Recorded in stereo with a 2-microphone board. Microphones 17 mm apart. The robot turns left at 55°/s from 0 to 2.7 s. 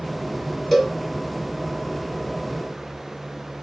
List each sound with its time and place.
0.7 s a cowbell: centre (ahead or behind), 1.2 m; by 0.9 s 15° left (ahead or behind), 1.2 m